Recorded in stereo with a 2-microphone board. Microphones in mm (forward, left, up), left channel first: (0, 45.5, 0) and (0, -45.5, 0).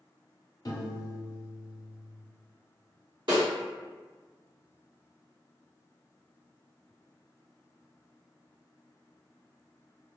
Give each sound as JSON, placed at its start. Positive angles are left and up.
{"t": 0.7, "sound": "a piano", "side_deg": 45, "distance_m": 0.7}
{"t": 3.3, "sound": "a snare drum", "side_deg": -65, "distance_m": 1.9}